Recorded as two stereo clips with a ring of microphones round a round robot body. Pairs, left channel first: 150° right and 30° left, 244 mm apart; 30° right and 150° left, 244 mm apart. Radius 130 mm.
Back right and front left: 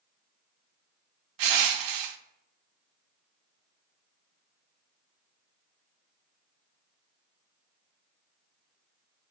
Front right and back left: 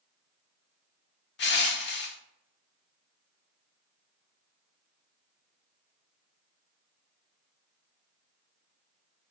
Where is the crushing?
20° left, 0.6 m.